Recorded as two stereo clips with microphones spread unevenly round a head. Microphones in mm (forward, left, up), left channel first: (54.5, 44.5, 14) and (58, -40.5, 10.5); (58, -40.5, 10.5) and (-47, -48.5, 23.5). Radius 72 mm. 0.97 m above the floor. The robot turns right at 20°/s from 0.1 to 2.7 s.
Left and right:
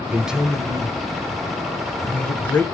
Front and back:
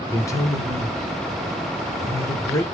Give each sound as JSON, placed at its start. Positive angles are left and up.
{"t": 0.1, "sound": "a man speaking", "azimuth_deg": -20, "distance_m": 1.0}